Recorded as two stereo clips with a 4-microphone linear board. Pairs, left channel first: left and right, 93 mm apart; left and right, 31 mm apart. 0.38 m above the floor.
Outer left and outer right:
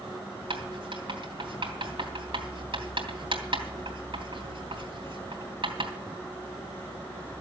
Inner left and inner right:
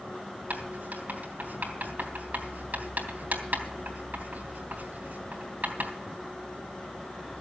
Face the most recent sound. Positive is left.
turn(degrees=-65)  # may be behind; listen again after turning